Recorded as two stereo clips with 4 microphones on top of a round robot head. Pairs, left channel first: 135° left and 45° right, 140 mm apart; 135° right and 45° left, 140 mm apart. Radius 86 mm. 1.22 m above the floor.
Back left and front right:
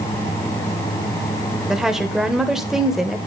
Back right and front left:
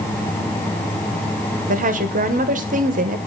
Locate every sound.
1.7 s a woman speaking: 45° left, 1.3 m